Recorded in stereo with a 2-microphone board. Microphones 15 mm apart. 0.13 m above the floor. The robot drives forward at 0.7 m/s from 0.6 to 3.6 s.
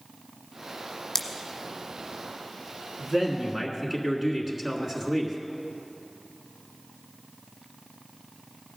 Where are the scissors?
25° left (ahead or behind), 0.9 m.